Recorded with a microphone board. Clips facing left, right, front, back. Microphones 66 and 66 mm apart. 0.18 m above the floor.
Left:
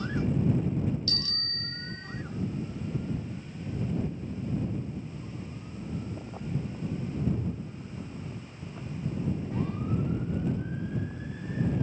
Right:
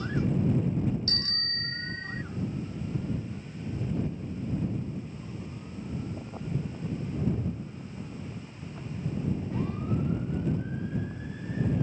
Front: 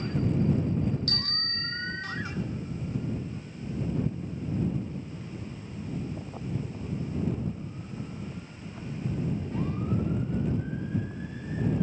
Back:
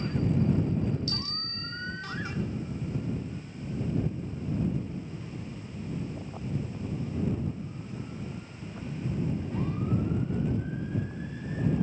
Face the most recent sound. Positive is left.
turn(degrees=-40)